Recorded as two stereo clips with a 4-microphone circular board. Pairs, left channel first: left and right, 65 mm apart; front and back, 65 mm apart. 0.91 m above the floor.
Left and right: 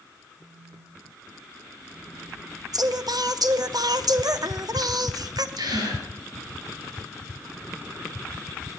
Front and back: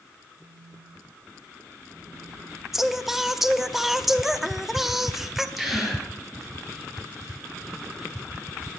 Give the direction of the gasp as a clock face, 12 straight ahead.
3 o'clock.